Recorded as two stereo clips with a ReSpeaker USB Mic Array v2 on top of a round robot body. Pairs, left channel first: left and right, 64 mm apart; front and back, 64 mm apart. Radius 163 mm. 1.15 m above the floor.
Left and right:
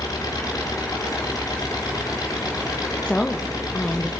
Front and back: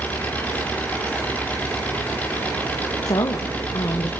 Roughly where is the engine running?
Ahead left.